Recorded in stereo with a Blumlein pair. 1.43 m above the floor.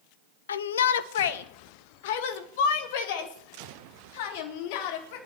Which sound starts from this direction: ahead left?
A shout, at 0.5 s.